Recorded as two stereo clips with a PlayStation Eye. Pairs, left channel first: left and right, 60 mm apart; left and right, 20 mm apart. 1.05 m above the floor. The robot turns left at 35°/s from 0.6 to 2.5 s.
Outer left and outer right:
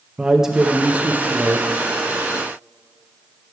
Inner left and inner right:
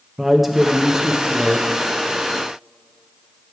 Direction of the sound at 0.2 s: 10° right.